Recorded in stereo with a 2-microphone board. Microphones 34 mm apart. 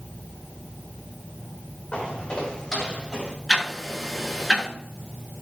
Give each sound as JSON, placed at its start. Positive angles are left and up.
{"t": 1.9, "sound": "footsteps", "side_deg": 35, "distance_m": 6.5}
{"t": 3.5, "sound": "ticking", "side_deg": 15, "distance_m": 6.5}